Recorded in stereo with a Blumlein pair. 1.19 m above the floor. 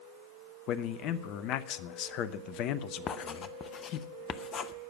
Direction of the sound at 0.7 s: 40° left.